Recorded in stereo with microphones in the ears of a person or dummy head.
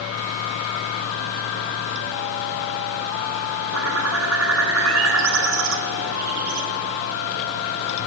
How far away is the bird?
About 2 m.